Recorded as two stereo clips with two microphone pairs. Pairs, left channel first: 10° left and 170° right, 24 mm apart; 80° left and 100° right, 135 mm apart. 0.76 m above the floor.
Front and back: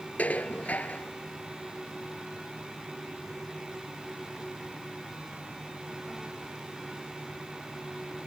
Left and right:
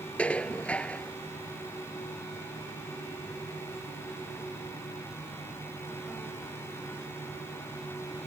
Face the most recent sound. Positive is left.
turn(degrees=0)